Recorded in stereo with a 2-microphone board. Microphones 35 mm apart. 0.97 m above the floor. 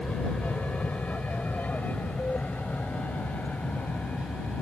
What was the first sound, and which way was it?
An aircraft, 50° left (ahead or behind).